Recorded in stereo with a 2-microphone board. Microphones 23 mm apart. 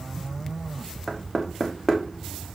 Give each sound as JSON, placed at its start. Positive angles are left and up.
{"t": 1.1, "sound": "knocking", "side_deg": 10, "distance_m": 1.4}